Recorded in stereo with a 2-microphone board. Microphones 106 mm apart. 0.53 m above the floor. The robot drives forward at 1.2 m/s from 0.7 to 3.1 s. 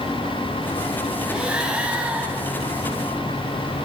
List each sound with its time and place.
1.3 s breathing: 5° right (ahead or behind), 5 m; by 2.8 s 10° right (ahead or behind), 3.5 m